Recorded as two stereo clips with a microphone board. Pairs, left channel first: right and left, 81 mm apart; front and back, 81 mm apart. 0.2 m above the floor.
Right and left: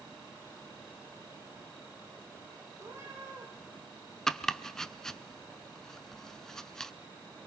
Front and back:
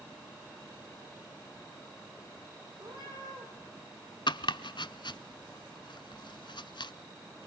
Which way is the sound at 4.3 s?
5° right.